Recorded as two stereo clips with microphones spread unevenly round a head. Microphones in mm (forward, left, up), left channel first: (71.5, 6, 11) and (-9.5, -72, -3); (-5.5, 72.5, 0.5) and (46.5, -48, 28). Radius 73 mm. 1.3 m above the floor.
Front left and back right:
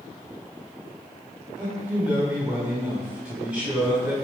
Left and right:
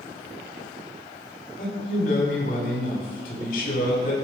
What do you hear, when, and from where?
1.6 s a man speaking: 140° left, 6 m